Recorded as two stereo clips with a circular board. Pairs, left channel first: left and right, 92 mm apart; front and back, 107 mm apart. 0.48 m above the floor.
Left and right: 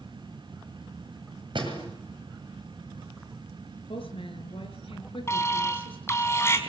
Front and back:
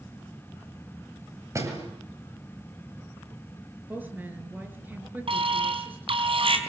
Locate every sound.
1.6 s a door slam: 120° right, 7.5 m
3.9 s a woman speaking: 105° left, 6.5 m
5.3 s an alarm: 150° left, 4.5 m